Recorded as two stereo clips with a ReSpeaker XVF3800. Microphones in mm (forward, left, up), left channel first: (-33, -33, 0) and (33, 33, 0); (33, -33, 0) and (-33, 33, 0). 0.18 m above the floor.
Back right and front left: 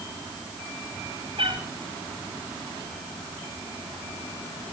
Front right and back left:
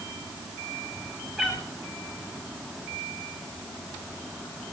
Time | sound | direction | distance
1.4 | a cat meowing | 50° left | 3.5 m